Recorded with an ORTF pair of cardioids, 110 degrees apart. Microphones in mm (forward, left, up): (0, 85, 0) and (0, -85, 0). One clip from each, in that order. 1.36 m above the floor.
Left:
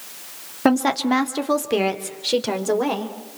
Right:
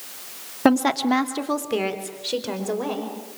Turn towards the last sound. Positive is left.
turn(degrees=35)